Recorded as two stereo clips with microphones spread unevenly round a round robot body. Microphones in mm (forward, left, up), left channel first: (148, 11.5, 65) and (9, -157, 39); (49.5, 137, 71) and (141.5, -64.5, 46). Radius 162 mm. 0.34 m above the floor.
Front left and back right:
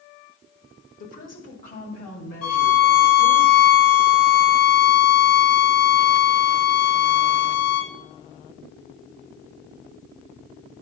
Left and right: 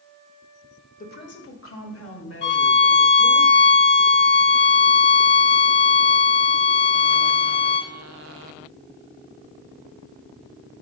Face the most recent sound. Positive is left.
turn(degrees=70)